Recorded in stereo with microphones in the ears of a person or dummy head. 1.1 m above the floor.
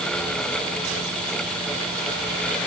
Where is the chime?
I don't hear a chime.